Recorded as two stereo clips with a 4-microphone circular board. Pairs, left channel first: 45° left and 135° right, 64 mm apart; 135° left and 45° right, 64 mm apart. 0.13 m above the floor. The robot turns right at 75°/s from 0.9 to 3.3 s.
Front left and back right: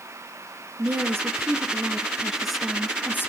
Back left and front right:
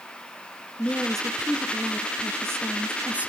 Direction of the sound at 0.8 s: 165° right.